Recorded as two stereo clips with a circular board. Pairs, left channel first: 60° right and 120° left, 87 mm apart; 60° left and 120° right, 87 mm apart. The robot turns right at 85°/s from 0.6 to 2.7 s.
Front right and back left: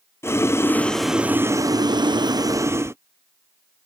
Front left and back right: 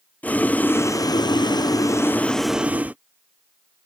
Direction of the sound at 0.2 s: 10° right.